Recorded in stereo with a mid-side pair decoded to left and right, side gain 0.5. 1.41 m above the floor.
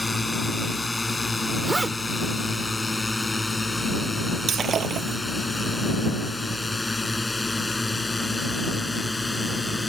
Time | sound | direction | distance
0.0 | a drone | 15° left | ?
1.6 | a zipper | 15° right | ?
4.5 | breaking glass | 45° right | ?